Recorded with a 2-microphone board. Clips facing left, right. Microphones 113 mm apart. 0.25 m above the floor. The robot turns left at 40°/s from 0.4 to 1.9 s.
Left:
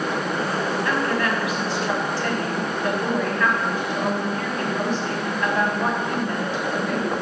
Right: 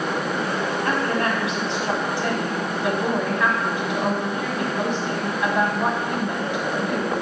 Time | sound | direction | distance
0.8 | a woman speaking | 115° right | 1.8 m